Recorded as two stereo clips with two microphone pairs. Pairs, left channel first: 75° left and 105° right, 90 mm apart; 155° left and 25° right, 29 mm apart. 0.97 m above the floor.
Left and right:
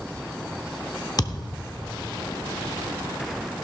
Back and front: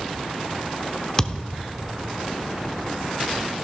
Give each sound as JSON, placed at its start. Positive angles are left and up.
{"t": 1.2, "sound": "a thud", "azimuth_deg": 100, "distance_m": 0.8}